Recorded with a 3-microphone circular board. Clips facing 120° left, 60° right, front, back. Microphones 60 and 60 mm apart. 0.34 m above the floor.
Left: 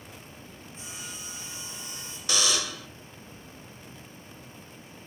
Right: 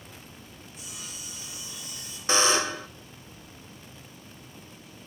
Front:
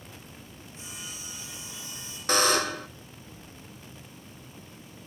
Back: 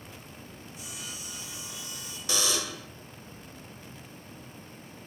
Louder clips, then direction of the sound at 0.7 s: Left 2 dB, front 1 dB; 60° left.